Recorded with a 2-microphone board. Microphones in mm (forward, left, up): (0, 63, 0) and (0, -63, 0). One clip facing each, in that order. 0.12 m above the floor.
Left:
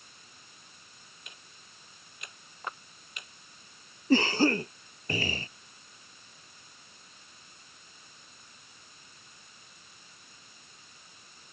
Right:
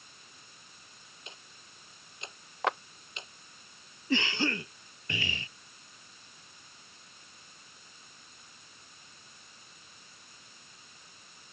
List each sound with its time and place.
1.3 s ticking: 25° right (ahead or behind)
2.6 s a clap: 80° right
4.1 s a cough: 40° left (ahead or behind)